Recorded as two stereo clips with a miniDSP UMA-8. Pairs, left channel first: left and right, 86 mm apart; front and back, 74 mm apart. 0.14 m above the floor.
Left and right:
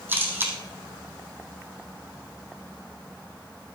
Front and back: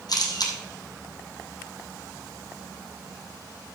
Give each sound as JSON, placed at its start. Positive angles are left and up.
{"t": 0.1, "sound": "a camera shutter", "azimuth_deg": -25, "distance_m": 2.5}